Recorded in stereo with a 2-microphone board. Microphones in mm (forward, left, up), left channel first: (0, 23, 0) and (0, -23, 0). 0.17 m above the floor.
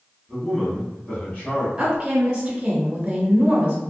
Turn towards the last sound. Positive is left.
turn(degrees=-20)  # may be behind; listen again after turning